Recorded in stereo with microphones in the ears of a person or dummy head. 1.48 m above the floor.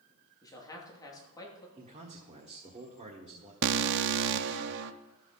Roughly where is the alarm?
Right.